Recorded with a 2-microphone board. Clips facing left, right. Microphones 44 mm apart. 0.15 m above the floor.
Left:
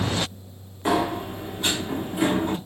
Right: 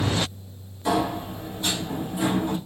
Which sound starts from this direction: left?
A sliding door, at 0.8 s.